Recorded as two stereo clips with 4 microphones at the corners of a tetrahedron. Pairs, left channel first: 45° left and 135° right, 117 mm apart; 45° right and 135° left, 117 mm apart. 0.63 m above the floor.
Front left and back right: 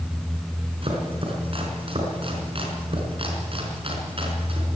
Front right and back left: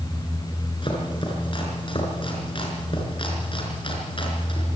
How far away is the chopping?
About 4.5 m.